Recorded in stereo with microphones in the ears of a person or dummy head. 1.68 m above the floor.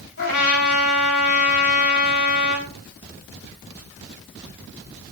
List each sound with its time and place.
0.2 s a trumpet: 65° left (ahead or behind), 5 m